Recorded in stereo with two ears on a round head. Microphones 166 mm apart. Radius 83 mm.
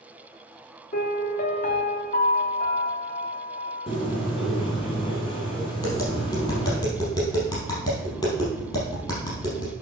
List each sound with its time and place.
0.9 s a piano: 45° left (ahead or behind), 1.2 m
3.9 s a bird: 30° left (ahead or behind), 3.5 m
5.8 s tapping: 25° left (ahead or behind), 5 m